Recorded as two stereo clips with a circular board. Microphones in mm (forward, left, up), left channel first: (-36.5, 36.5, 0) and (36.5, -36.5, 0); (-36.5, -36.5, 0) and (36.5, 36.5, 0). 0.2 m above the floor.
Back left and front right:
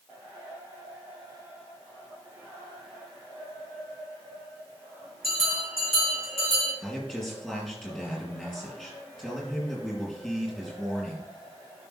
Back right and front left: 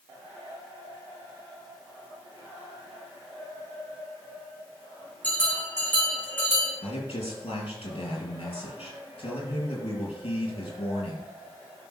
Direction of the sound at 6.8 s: 135° right.